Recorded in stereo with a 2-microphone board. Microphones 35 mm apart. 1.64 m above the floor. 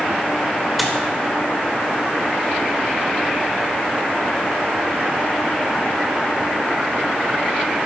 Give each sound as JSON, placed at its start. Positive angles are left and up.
{"t": 0.8, "sound": "a dropped coin", "side_deg": 0, "distance_m": 1.5}